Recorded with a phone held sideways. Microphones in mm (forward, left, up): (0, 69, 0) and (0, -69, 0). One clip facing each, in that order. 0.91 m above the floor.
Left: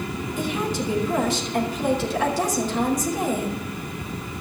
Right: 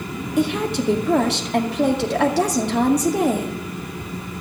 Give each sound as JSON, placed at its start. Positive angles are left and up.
{"t": 0.4, "sound": "a woman speaking", "side_deg": -70, "distance_m": 2.0}